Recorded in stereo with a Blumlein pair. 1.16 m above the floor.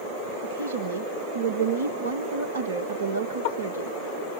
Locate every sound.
0.4 s a woman speaking: 65° right, 1.1 m